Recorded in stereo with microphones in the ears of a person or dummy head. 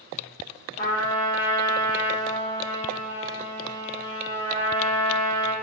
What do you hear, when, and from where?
0.8 s a trumpet: 35° left (ahead or behind), 1.8 m